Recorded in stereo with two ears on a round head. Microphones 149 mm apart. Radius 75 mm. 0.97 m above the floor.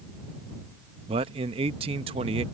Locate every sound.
1.1 s a man speaking: 35° right (ahead or behind)